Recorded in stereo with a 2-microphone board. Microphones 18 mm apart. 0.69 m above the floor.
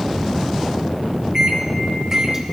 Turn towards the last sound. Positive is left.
turn(degrees=-25)  # may be behind; listen again after turning